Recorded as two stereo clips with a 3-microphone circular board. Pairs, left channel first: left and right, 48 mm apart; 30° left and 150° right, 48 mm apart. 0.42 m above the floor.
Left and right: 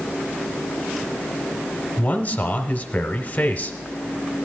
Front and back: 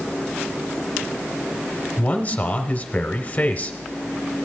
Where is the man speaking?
55° left, 1.1 m.